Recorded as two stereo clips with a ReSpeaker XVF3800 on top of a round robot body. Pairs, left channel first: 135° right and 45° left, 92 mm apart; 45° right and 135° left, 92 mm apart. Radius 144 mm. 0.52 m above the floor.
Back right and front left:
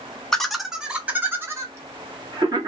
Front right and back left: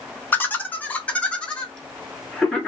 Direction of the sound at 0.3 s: 60° right.